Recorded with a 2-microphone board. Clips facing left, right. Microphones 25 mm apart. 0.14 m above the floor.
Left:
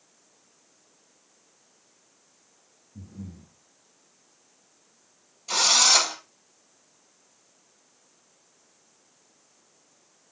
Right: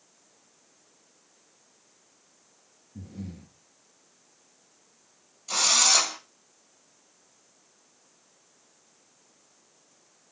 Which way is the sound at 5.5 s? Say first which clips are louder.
Left 3 dB; 20° left (ahead or behind).